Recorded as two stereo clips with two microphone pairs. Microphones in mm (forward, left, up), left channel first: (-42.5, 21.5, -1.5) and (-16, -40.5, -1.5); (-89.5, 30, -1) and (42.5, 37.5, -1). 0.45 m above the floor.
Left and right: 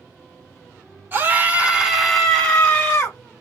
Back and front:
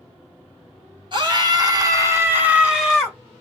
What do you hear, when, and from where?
1.1 s a scream: 25° right, 1.2 m; by 3.2 s 100° left, 1.2 m